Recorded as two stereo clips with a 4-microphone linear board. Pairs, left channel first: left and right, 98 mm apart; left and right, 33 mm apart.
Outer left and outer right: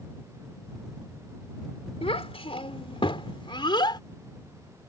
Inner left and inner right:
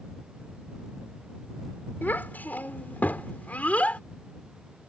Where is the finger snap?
I don't hear a finger snap.